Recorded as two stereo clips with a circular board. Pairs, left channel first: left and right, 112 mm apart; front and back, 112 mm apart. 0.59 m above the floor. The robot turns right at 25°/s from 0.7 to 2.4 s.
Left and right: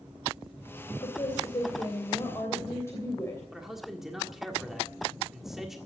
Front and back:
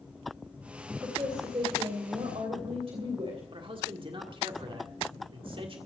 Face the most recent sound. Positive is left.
turn(degrees=-175)